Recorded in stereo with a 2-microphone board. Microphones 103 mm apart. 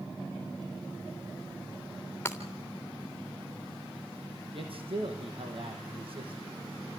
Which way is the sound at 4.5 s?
60° right (ahead or behind).